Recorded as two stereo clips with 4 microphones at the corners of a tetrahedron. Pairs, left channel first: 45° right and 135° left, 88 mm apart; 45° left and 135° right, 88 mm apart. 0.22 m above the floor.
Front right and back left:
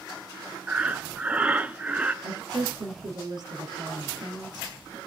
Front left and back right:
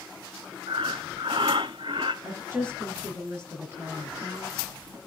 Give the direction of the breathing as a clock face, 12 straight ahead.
5 o'clock.